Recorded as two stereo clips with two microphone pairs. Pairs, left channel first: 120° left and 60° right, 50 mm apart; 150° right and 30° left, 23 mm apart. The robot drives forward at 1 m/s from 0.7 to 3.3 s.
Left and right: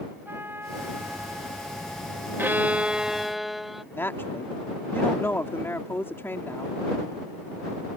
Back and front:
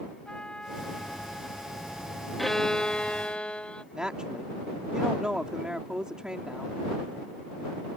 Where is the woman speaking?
85° left.